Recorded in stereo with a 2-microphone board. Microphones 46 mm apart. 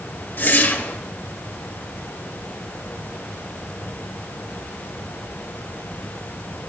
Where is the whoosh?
45° left (ahead or behind), 1.0 m.